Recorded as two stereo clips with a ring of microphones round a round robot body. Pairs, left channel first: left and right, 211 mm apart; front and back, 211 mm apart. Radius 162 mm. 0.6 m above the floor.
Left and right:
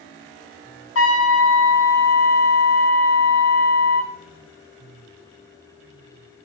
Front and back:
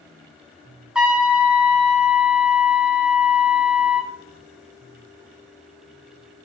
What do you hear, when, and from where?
0.9 s a trumpet: 95° left, 1.6 m